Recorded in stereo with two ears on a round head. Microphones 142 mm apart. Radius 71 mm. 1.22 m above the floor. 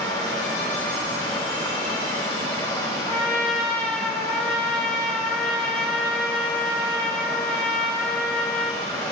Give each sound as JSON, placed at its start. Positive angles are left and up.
{"t": 0.0, "sound": "running water", "side_deg": 30, "distance_m": 5.0}
{"t": 3.1, "sound": "a trumpet", "side_deg": 5, "distance_m": 2.5}